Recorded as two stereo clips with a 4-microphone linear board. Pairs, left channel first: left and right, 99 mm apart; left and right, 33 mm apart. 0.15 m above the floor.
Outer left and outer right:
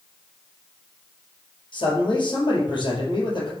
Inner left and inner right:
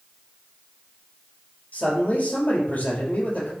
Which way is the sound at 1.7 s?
55° left (ahead or behind).